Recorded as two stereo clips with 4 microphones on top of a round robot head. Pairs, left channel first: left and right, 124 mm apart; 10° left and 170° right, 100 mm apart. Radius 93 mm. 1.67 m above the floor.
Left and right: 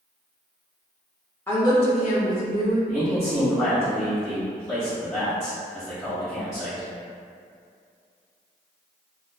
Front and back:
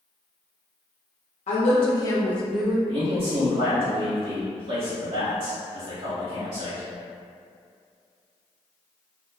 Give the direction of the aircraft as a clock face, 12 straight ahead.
No aircraft in this recording.